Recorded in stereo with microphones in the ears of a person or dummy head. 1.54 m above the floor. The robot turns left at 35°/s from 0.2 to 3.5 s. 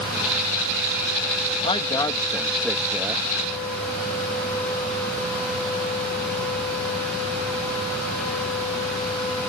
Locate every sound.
1.6 s a woman speaking: 35° left; by 3.3 s 25° right